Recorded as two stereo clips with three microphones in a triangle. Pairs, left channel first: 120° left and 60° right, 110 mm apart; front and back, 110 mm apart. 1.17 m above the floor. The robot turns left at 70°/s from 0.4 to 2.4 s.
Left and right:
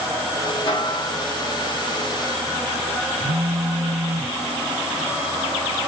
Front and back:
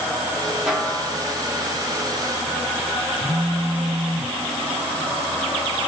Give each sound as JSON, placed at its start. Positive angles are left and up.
{"t": 0.7, "sound": "a snare drum", "azimuth_deg": 100, "distance_m": 0.9}
{"t": 3.2, "sound": "a phone buzzing", "azimuth_deg": 70, "distance_m": 1.3}